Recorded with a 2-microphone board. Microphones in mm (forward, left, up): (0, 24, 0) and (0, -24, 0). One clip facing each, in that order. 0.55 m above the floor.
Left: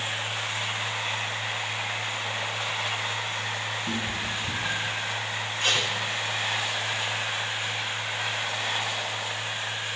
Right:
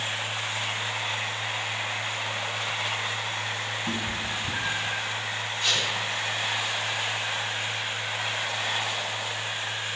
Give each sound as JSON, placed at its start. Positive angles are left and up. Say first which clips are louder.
{"t": 3.9, "sound": "a cat meowing", "louder": "even", "side_deg": -25, "distance_m": 2.0}
{"t": 5.6, "sound": "tape being pulled", "louder": "left 2 dB", "side_deg": 55, "distance_m": 4.5}